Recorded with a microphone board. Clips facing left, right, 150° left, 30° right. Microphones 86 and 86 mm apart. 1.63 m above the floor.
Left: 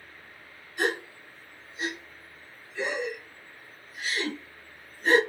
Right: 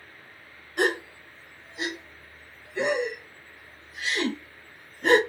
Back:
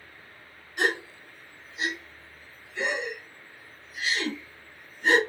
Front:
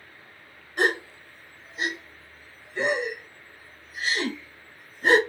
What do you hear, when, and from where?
0.8 s a gasp: 75° right, 0.7 m